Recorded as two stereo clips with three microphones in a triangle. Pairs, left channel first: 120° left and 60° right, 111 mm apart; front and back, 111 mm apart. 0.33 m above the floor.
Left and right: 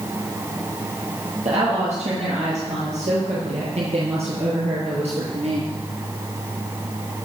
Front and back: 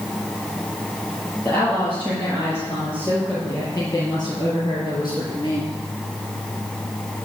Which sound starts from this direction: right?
A woman speaking, at 1.4 s.